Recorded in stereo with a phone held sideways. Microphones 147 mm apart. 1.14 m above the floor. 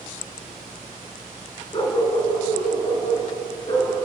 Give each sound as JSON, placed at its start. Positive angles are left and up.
{"t": 1.7, "sound": "a dog barking", "side_deg": 30, "distance_m": 4.0}